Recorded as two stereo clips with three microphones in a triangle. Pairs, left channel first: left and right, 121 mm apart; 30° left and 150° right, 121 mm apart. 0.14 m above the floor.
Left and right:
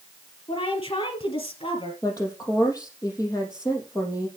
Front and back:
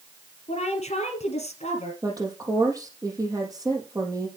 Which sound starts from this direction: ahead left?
A woman speaking, at 0.5 s.